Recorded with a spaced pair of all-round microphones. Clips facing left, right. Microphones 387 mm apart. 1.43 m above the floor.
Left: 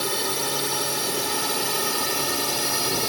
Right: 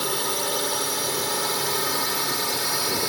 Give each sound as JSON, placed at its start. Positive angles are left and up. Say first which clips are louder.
{"t": 0.0, "sound": "a drone", "louder": "even", "side_deg": 40}